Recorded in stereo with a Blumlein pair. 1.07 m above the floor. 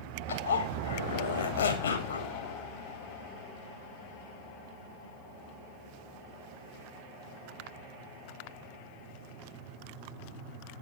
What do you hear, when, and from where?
0.3 s a zipper: 70° left, 2.5 m